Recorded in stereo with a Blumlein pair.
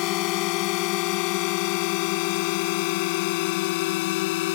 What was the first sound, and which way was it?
A drone, 40° left.